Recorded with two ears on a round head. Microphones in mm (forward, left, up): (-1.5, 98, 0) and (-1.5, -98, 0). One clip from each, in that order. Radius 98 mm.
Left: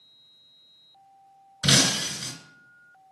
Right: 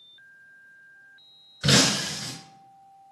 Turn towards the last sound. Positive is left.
turn(degrees=25)  # may be behind; listen again after turning